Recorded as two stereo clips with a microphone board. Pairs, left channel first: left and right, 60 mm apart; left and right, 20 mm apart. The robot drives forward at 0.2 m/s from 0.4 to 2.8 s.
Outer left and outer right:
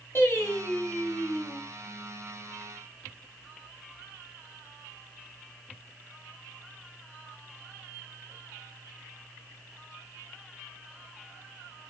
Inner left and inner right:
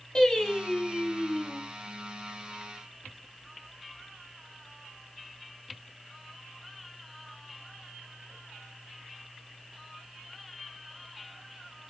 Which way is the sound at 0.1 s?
40° left (ahead or behind).